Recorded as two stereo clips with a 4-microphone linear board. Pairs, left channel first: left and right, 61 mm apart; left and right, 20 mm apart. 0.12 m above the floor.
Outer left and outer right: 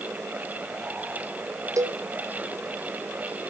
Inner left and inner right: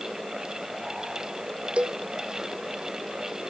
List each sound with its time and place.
1.8 s a cowbell: 75° right (ahead or behind), 1.7 m